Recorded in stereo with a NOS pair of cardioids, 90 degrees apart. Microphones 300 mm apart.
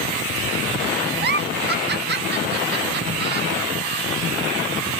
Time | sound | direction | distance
1.2 | a giggle | 30° right | 1.2 m